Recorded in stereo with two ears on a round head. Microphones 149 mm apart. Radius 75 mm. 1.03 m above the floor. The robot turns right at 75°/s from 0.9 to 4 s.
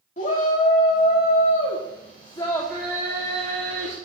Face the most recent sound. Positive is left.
turn(degrees=-80)